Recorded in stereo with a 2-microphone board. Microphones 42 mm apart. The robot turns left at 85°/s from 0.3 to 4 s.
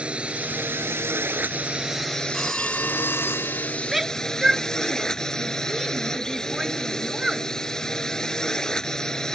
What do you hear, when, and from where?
0.0 s a drone: 30° right; by 9.4 s 15° left
2.3 s a phone ringing: 175° right; by 3.7 s 70° left
3.9 s a shout: centre (ahead or behind); by 7.5 s 10° right (ahead or behind)